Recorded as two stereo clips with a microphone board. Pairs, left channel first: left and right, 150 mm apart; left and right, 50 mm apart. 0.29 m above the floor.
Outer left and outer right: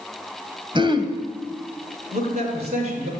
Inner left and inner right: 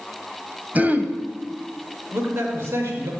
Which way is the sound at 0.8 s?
30° right (ahead or behind).